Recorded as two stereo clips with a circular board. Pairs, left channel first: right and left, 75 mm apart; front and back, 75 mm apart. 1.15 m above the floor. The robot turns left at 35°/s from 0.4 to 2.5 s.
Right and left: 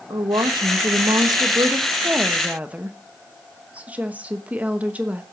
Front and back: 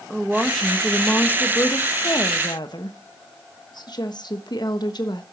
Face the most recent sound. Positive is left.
turn(degrees=20)